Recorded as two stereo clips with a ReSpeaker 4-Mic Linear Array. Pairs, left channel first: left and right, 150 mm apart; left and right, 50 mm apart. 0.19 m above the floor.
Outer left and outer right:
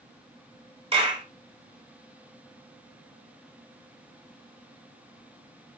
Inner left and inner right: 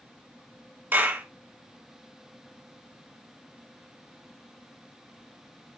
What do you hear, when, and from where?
0.9 s a clap: 40° right (ahead or behind), 1.3 m